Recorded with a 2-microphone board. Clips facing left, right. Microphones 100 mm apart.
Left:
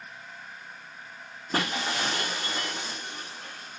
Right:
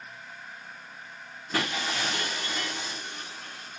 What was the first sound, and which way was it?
Breaking glass, 35° left (ahead or behind).